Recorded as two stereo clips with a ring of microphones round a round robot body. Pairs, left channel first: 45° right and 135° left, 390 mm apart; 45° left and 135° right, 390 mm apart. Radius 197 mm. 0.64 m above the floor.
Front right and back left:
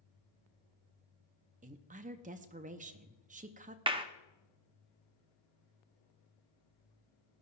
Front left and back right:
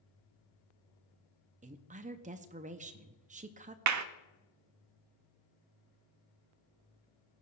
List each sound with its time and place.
1.6 s a woman speaking: straight behind, 0.6 m
3.9 s a clap: 155° right, 0.7 m